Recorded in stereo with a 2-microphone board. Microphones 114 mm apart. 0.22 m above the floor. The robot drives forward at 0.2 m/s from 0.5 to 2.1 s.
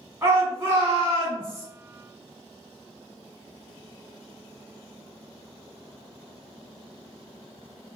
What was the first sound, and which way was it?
A shout, 20° right (ahead or behind).